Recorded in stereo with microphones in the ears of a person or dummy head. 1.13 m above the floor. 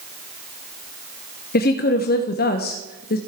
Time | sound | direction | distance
1.5 | a woman speaking | 55° left (ahead or behind) | 0.7 m